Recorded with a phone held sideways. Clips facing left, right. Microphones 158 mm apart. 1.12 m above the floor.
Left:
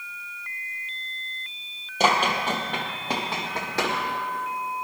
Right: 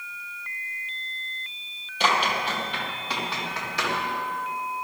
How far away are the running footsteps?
About 2 m.